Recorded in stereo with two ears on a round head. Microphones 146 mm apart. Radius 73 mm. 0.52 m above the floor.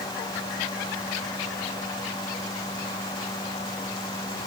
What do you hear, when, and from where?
Only background noise.